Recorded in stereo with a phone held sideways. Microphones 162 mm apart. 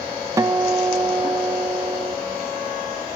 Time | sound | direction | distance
0.4 | a guitar | 20° right (ahead or behind) | 0.7 m